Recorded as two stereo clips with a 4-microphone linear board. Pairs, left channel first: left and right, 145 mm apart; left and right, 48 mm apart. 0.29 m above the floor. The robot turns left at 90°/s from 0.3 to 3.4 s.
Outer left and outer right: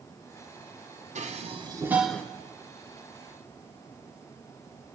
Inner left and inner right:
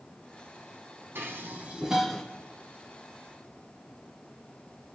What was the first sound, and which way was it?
Dishes clattering, 60° right (ahead or behind).